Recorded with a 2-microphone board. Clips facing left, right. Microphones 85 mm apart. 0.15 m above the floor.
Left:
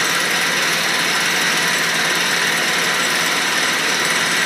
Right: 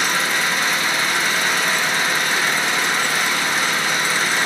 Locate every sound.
0.0 s an engine running: 75° left (ahead or behind), 0.9 m